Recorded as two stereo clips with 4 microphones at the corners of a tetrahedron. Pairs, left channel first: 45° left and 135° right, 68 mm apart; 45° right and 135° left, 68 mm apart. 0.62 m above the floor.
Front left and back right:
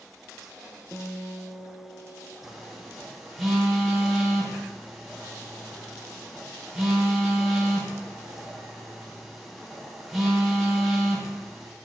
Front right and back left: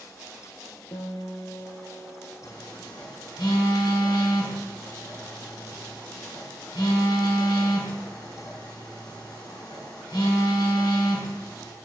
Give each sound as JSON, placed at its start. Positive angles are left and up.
{"t": 0.9, "sound": "a guitar", "azimuth_deg": -45, "distance_m": 0.9}
{"t": 2.4, "sound": "a phone buzzing", "azimuth_deg": -50, "distance_m": 3.5}